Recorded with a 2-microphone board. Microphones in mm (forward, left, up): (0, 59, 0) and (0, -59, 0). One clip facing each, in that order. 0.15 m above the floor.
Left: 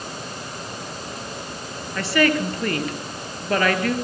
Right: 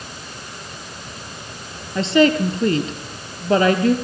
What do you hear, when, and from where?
1.9 s a woman speaking: 25° right (ahead or behind), 2.5 m